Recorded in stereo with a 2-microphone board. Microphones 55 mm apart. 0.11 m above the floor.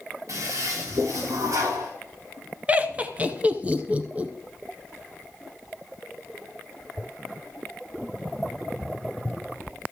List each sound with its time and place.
0.3 s a toilet flushing: 65° right (ahead or behind), 3.5 m
2.7 s laughter: 25° right (ahead or behind), 1.1 m